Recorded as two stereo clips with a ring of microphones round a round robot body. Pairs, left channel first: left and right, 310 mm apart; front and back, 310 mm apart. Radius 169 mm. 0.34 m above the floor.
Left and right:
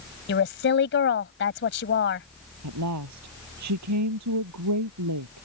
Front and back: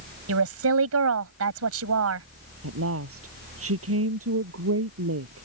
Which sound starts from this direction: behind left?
A woman speaking, at 0.3 s.